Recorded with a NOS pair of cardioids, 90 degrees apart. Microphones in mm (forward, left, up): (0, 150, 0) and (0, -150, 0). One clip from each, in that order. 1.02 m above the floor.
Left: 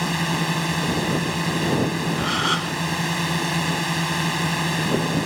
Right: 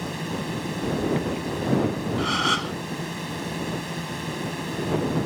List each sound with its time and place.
0.0 s a drone: 70° left
2.2 s a gasp: 5° left